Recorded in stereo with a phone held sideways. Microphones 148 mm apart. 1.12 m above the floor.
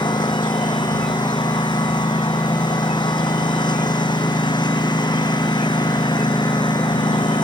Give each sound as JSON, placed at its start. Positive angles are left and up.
{"t": 0.0, "sound": "a lawn mower", "side_deg": 30}